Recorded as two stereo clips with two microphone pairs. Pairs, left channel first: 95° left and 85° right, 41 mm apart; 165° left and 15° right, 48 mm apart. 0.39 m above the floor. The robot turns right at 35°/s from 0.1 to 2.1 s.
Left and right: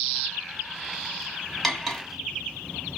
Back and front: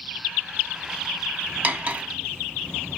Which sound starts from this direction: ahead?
Cutlery clinking, at 1.6 s.